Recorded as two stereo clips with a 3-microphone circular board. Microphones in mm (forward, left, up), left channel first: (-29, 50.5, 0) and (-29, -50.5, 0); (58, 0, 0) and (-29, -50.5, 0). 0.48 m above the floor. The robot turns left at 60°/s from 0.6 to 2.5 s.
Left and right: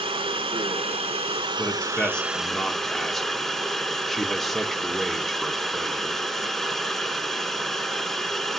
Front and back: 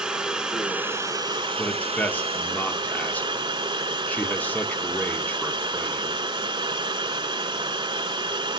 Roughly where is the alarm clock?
No alarm clock in this recording.